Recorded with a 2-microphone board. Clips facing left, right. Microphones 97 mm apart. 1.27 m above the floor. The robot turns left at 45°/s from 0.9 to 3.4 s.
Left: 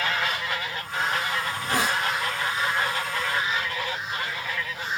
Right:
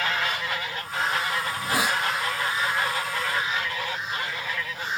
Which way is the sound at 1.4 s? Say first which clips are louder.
Even; 5° left (ahead or behind).